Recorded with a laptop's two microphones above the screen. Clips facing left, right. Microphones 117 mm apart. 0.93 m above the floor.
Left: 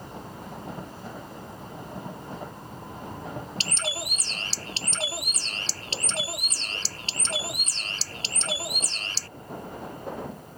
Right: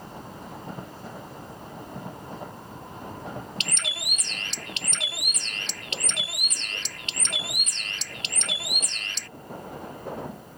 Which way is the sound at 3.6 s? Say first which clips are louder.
Left 4 dB; 35° left (ahead or behind).